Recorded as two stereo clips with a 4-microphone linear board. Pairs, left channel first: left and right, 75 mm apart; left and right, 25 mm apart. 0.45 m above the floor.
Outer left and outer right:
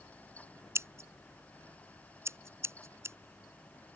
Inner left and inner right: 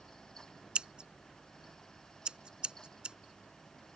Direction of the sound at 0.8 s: 40° right (ahead or behind).